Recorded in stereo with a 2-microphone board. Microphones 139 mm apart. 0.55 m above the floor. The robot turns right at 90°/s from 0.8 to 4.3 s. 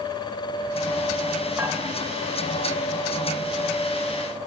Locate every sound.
1.6 s dishes clattering: 25° right (ahead or behind), 1.6 m; by 1.8 s 10° right (ahead or behind), 1.6 m